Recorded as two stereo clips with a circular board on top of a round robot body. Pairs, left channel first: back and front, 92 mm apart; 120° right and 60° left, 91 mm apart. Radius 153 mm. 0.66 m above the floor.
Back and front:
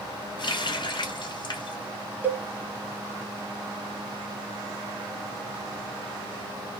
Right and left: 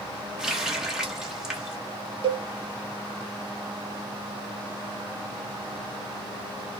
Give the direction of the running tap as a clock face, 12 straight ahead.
7 o'clock.